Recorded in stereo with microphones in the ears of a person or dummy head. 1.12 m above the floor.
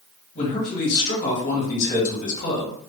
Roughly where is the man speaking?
Left.